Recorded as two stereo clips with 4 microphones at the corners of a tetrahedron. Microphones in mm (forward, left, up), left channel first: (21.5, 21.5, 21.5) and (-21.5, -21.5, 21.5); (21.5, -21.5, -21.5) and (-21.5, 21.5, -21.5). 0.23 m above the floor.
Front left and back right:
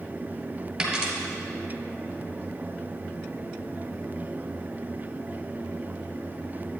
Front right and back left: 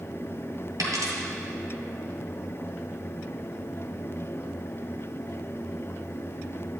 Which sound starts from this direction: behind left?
A dropped coin, at 0.8 s.